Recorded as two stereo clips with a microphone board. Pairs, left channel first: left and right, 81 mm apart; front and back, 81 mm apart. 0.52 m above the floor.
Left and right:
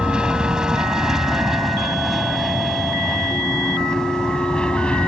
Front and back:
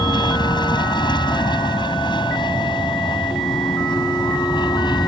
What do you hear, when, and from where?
0.0 s an aircraft: 15° right; by 5.1 s 15° left